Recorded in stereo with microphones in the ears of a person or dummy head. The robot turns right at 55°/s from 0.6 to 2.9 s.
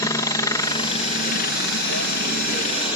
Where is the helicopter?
20° left (ahead or behind); by 3.0 s 35° left (ahead or behind).